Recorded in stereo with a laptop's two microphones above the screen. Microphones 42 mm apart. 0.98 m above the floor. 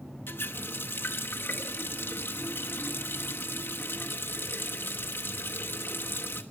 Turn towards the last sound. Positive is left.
turn(degrees=60)  # may be behind; listen again after turning